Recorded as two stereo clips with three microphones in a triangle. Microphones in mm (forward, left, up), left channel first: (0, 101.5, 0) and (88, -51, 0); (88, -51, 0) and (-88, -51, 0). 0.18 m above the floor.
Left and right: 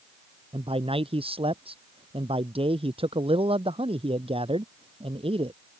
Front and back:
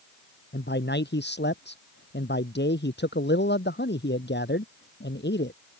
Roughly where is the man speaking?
Ahead.